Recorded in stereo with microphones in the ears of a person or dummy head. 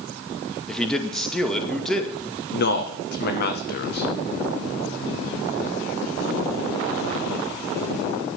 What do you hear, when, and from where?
0.7 s a man speaking: 5° left (ahead or behind), 2 m
2.5 s a man speaking: 50° left (ahead or behind), 1.7 m